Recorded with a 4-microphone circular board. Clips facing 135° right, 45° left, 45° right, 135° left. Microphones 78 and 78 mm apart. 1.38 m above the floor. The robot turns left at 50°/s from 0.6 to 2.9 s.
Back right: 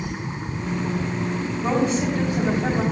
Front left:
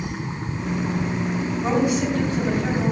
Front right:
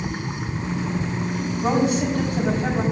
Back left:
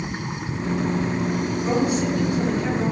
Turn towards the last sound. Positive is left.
turn(degrees=-90)